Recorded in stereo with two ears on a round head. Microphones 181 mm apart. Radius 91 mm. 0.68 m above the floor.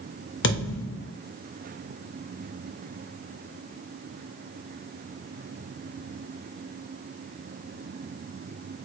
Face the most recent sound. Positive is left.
turn(degrees=65)  # may be behind; listen again after turning